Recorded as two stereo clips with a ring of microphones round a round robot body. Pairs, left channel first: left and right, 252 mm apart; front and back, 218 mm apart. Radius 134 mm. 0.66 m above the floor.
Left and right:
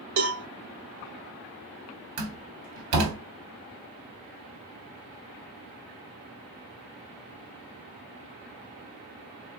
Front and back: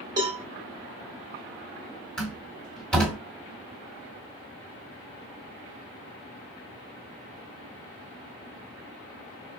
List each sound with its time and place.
0.2 s a cowbell: 105° right, 0.8 m
2.2 s a door slam: 85° right, 1.1 m